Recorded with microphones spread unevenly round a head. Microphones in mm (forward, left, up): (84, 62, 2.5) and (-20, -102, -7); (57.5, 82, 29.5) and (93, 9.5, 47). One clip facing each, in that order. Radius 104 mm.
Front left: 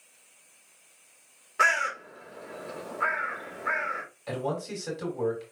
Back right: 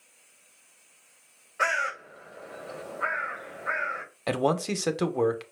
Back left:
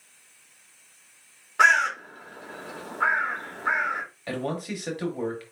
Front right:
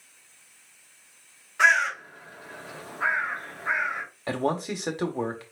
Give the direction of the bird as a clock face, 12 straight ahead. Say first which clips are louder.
Even, back left 2 dB; 9 o'clock.